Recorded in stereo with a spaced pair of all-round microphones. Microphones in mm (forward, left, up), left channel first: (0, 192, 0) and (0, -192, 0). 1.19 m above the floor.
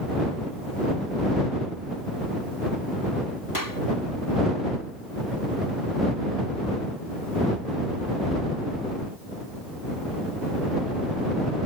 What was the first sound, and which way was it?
A clap, 60° left (ahead or behind).